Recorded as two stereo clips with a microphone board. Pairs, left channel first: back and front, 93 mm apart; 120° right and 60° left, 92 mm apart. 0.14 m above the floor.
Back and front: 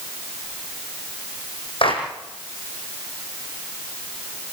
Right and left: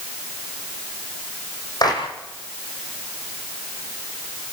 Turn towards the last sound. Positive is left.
turn(degrees=-165)